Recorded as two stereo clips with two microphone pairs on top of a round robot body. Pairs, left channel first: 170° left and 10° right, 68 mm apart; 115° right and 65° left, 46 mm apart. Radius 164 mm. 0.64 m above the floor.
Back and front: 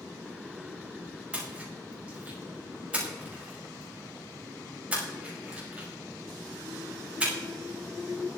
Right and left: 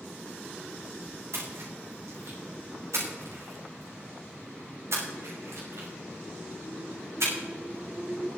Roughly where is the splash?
Ahead left.